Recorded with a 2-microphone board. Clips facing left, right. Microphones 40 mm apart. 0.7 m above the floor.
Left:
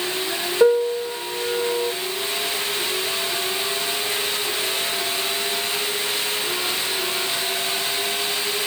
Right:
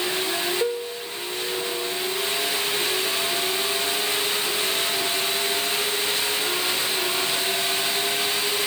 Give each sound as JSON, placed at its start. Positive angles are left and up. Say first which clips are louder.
{"t": 0.6, "sound": "a piano", "louder": "left 10 dB", "side_deg": 45}